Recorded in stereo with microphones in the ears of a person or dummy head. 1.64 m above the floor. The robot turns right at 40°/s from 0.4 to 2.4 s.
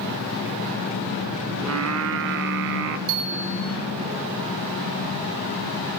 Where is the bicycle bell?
70° right (ahead or behind), 3 m.